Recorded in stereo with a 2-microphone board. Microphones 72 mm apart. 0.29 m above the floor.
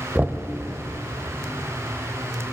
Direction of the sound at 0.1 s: 20° right (ahead or behind).